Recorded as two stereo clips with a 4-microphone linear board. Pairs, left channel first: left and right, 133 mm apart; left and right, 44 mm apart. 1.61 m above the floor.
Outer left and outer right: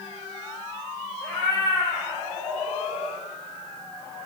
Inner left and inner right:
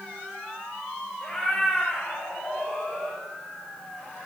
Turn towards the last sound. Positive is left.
turn(degrees=55)  # may be behind; listen again after turning